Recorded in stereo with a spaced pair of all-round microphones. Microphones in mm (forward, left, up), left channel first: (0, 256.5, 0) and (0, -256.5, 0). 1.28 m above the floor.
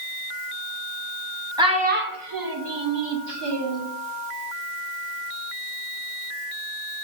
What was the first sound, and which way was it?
A child speaking, 10° right (ahead or behind).